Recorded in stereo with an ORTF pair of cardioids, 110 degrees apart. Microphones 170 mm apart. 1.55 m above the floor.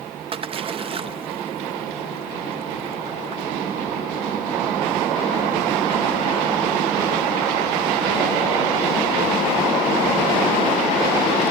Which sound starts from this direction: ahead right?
A splash, at 0.3 s.